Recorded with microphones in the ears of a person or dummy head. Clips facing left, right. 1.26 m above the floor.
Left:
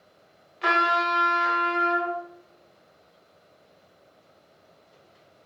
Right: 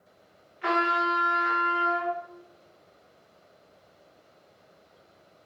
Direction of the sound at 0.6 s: 55° left (ahead or behind).